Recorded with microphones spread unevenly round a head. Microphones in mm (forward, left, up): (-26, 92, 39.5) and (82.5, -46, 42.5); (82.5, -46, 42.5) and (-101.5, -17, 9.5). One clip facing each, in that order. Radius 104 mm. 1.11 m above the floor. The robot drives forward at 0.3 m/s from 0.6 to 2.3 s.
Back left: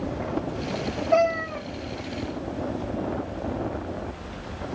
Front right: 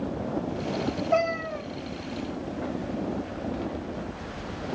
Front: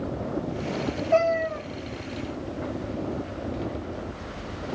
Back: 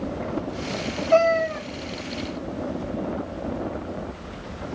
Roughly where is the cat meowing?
Behind.